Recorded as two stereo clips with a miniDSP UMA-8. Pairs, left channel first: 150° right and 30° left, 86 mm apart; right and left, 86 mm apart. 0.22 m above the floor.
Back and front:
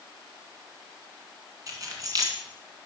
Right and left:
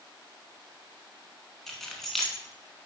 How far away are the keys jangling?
About 1.7 m.